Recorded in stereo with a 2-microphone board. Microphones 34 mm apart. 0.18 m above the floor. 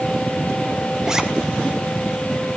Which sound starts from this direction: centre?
A zipper, at 1.1 s.